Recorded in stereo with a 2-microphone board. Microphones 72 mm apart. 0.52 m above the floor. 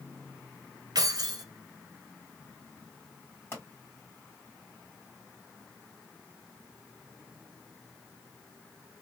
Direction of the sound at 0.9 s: 65° right (ahead or behind).